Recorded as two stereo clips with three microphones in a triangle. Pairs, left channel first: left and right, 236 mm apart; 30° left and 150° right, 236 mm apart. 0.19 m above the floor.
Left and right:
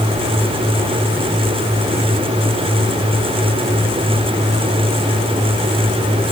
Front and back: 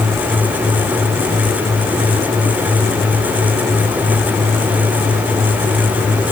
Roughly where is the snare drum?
No snare drum in this recording.